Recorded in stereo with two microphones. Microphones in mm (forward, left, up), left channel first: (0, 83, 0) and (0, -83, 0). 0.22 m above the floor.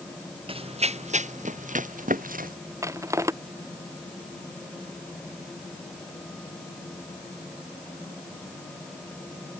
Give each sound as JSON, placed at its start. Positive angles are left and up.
{"t": 0.5, "sound": "running footsteps", "side_deg": -35}
{"t": 2.8, "sound": "crushing", "side_deg": -15}